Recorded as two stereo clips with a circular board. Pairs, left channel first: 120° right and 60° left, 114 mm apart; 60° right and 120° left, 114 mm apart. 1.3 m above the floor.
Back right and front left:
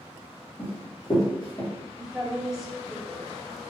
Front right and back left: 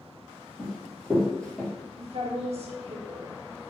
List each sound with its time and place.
0.6 s running footsteps: 155° right, 1.6 m; by 1.7 s 140° right, 2 m
2.0 s a woman speaking: 145° left, 0.9 m